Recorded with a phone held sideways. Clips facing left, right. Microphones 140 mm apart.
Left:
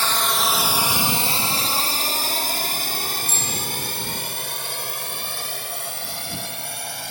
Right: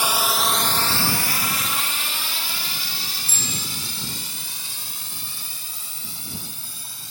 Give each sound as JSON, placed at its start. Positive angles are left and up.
{"t": 0.0, "sound": "a drone", "side_deg": -15}
{"t": 3.3, "sound": "a bicycle bell", "side_deg": 35}